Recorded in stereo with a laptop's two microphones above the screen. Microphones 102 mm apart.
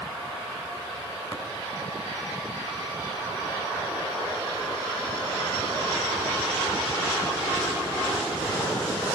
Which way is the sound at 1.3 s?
40° left (ahead or behind).